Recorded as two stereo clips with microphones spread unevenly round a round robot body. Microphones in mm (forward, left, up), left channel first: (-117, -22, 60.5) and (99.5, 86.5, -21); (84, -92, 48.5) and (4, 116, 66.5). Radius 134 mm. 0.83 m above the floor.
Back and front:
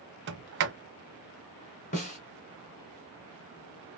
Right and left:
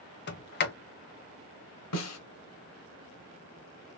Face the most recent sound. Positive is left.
turn(degrees=-100)